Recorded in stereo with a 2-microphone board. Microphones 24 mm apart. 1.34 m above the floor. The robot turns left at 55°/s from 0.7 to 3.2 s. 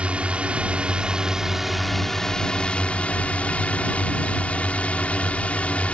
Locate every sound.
0.0 s a drone: 120° right; by 5.9 s 105° left